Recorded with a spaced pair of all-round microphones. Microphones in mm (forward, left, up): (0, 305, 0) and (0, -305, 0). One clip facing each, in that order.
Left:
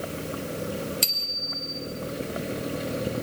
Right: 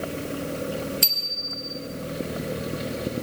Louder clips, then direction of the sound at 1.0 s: Right 1 dB; centre (ahead or behind).